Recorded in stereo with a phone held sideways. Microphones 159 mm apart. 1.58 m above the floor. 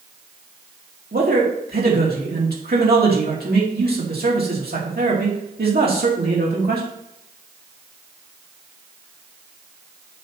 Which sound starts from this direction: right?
A man speaking, at 1.1 s.